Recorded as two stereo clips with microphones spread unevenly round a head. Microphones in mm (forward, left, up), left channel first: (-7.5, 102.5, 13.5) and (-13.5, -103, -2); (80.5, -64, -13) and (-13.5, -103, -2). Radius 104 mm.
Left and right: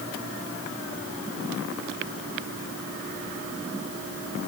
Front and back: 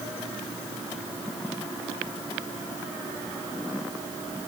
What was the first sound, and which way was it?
Only background noise.